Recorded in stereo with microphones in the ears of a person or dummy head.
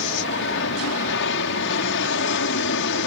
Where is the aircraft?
65° left (ahead or behind).